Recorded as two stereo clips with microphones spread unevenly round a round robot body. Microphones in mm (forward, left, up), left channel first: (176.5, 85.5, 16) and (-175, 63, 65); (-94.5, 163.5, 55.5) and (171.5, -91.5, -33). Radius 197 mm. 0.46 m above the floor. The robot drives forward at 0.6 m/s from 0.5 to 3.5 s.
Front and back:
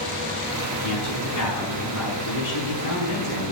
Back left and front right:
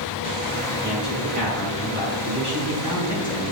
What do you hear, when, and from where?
0.8 s a man speaking: 40° left, 5.5 m; by 3.5 s 55° left, 4.5 m